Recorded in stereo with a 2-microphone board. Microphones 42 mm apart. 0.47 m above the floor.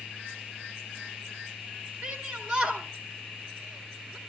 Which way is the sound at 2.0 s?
25° right (ahead or behind).